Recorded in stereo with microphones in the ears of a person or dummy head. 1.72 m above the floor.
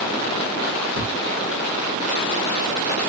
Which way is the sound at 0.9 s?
20° right (ahead or behind).